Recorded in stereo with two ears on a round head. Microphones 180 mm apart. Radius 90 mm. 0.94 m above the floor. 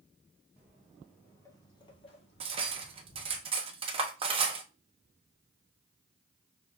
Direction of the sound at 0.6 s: 10° right (ahead or behind).